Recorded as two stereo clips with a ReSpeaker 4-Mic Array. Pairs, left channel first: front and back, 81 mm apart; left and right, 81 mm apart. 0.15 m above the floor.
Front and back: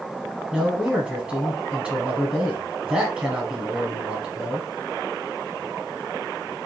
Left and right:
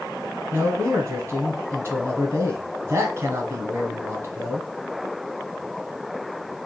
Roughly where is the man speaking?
Behind right.